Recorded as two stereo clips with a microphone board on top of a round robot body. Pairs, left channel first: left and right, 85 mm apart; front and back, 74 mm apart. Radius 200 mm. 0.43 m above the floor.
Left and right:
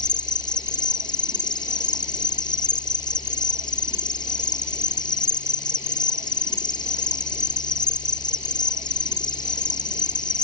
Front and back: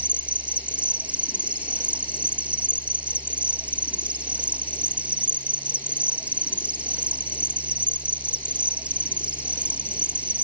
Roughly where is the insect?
Left.